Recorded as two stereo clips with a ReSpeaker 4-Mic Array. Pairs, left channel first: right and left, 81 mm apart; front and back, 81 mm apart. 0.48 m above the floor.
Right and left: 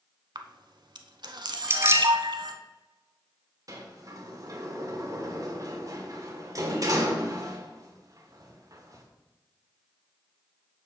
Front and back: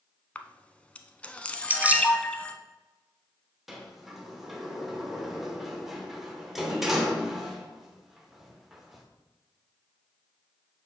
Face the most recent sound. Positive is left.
turn(degrees=95)